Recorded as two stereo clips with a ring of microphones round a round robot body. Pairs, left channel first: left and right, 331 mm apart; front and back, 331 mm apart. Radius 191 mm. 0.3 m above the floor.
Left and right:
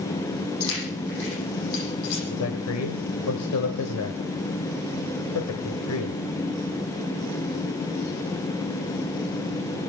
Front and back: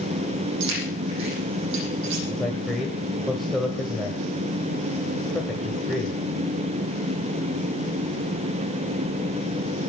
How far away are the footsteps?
I don't hear footsteps.